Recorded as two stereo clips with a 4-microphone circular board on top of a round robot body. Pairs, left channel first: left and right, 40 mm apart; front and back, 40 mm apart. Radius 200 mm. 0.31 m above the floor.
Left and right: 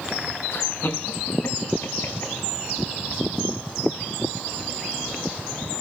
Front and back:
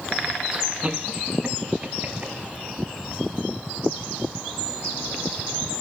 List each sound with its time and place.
0.5 s laughter: 105° left, 4 m; by 2.3 s 120° left, 4 m